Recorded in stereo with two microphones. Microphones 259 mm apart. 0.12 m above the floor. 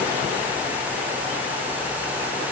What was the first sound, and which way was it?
Only background noise.